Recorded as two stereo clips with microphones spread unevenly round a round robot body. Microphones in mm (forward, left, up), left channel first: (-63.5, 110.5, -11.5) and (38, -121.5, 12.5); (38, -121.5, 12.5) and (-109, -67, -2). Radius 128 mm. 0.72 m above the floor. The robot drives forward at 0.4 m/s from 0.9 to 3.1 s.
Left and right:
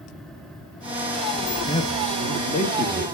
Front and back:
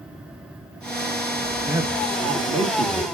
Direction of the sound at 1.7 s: 130° left.